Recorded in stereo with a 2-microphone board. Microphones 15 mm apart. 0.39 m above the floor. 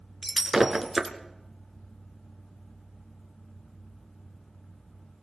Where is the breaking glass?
25° right (ahead or behind), 2 m.